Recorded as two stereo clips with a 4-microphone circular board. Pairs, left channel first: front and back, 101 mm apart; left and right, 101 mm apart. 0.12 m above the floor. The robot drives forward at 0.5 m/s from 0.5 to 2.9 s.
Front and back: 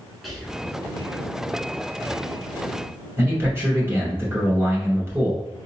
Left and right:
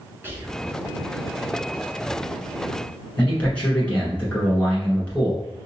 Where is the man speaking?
150° left, 1.5 m.